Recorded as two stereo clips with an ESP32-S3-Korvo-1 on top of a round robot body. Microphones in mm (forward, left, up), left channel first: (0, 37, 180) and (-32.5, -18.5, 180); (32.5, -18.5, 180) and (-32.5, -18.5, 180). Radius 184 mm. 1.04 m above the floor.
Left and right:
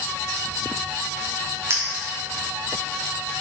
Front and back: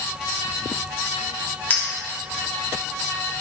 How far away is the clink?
About 1.2 m.